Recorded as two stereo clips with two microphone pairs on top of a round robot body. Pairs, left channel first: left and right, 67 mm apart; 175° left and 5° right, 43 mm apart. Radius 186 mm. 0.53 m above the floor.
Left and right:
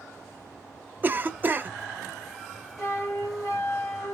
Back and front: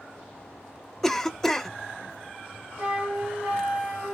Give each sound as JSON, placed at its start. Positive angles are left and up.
{"t": 1.0, "sound": "a cough", "azimuth_deg": -115, "distance_m": 0.8}
{"t": 2.8, "sound": "a flute", "azimuth_deg": 55, "distance_m": 3.0}